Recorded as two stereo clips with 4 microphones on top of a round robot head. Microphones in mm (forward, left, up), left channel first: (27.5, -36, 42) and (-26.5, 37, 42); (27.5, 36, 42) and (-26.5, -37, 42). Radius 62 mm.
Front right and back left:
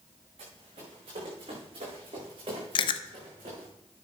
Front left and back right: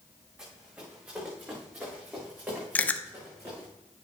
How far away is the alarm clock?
I don't hear an alarm clock.